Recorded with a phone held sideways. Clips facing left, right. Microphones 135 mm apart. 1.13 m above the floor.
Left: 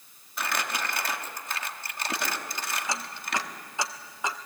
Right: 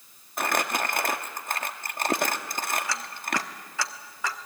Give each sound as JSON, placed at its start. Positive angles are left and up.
{"t": 0.4, "sound": "crumpling", "side_deg": -50, "distance_m": 1.3}
{"t": 2.9, "sound": "ticking", "side_deg": 20, "distance_m": 1.1}